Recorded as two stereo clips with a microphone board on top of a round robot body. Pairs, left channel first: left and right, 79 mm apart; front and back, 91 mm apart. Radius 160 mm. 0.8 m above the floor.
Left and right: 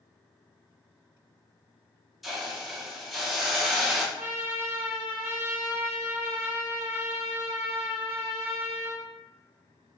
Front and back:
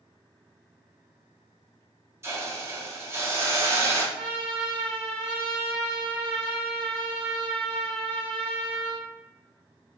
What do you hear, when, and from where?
2.2 s a hiss: 175° right, 1.0 m
4.2 s a trumpet: 160° right, 1.6 m